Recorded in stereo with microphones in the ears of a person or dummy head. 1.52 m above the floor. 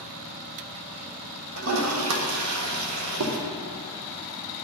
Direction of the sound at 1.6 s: 85° right.